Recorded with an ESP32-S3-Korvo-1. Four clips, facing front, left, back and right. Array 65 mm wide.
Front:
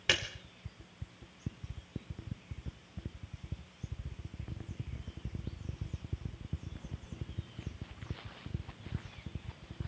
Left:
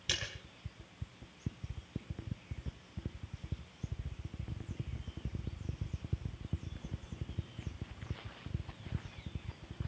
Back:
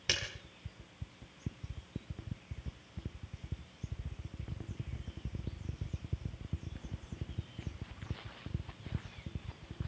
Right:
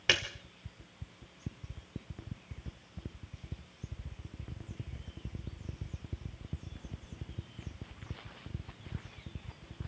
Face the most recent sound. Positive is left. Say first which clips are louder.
# right 10 dB, front 5 dB
turn(degrees=-65)